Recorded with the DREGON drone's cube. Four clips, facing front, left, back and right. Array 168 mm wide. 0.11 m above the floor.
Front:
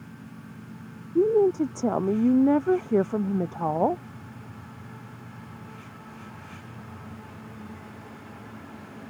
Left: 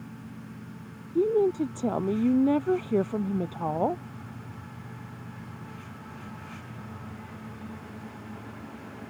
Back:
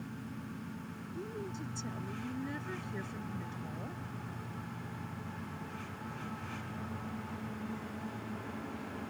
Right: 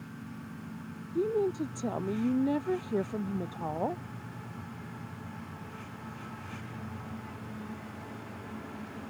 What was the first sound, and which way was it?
A woman speaking, 15° left.